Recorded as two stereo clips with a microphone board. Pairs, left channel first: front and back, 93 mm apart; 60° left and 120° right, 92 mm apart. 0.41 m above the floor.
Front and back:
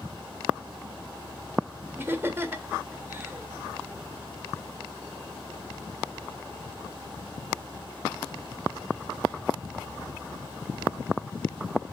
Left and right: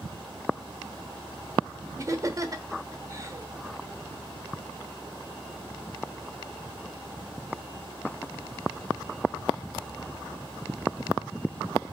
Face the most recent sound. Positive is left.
turn(degrees=-135)